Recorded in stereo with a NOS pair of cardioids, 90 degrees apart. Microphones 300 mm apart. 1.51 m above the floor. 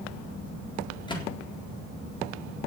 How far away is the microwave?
About 4 m.